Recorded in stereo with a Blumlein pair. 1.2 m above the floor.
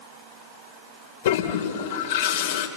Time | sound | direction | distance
1.2 | a toilet flushing | 55° left | 3 m